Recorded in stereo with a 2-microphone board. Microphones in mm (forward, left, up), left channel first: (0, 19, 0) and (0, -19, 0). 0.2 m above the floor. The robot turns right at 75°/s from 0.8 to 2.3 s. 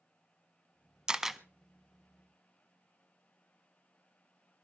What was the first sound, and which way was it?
A camera shutter, 20° right (ahead or behind).